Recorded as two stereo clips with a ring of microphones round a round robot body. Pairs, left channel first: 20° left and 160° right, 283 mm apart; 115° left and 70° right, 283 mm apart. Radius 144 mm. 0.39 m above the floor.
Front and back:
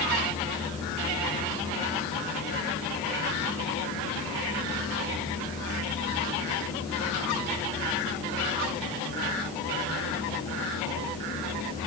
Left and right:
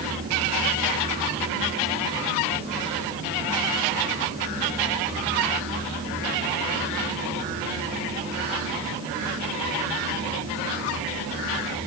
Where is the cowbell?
I don't hear a cowbell.